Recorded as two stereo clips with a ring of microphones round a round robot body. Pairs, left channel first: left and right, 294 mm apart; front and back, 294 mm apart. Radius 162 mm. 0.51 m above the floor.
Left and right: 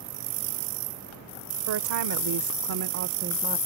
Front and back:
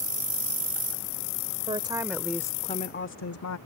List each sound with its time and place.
1.7 s a woman speaking: 110° right; by 3.6 s 20° right